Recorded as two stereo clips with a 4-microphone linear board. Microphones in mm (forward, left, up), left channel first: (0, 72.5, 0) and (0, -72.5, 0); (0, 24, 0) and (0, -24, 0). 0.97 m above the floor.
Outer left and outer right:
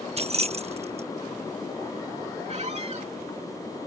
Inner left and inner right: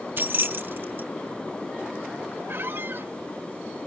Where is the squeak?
50° right (ahead or behind).